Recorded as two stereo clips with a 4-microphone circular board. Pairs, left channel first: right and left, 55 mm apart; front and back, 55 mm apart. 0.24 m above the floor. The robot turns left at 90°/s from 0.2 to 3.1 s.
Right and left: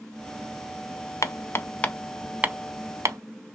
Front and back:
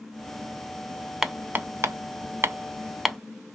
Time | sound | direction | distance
1.2 | hammering | 100° right | 0.5 m